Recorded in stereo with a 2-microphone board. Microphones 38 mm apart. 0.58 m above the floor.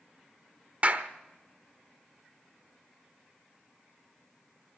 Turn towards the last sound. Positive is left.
turn(degrees=-35)  # may be behind; listen again after turning